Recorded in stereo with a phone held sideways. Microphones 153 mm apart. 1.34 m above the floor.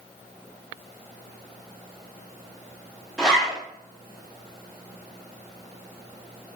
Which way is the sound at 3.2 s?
5° left (ahead or behind).